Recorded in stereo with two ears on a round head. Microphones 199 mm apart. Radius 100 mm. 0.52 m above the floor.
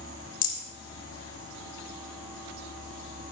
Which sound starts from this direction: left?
A rattle, at 0.4 s.